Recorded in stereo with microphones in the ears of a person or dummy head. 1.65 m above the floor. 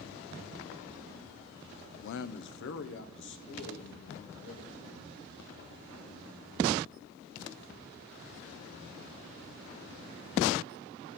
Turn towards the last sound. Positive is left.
turn(degrees=60)  # may be behind; listen again after turning